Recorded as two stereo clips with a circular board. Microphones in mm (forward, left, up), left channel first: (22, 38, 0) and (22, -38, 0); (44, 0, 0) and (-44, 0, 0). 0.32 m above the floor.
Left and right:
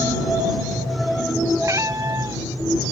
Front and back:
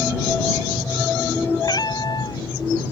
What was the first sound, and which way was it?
A cat meowing, 40° right.